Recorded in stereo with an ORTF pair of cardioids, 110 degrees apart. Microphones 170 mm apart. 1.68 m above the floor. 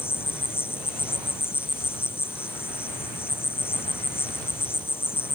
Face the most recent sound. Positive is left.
turn(degrees=15)